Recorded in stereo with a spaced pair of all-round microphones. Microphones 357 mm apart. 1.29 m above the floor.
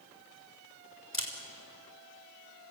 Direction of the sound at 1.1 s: 35° left (ahead or behind).